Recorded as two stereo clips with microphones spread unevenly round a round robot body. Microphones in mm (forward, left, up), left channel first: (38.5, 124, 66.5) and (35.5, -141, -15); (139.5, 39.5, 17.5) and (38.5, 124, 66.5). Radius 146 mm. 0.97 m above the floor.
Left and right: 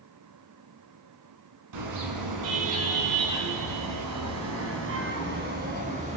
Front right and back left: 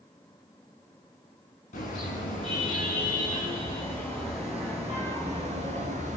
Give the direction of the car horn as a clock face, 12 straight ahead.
3 o'clock.